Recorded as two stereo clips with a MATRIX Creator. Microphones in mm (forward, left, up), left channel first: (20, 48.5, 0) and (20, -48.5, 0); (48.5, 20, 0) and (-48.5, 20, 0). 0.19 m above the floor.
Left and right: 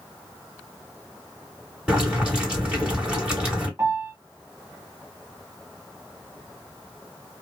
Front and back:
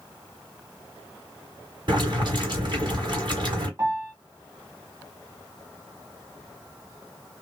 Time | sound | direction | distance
1.9 | boiling | 170° right | 2 m
3.8 | a piano | 140° right | 2 m